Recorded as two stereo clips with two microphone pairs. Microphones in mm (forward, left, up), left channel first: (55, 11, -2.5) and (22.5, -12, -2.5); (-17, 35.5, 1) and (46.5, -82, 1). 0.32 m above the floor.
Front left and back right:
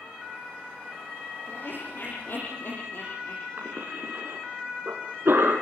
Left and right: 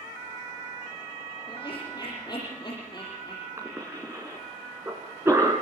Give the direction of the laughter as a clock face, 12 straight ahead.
10 o'clock.